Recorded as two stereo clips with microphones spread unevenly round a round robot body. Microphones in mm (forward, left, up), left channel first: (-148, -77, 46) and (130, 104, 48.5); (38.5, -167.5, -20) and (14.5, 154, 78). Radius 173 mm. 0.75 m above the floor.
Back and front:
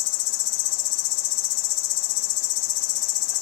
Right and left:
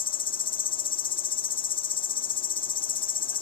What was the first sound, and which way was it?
An insect, 155° right.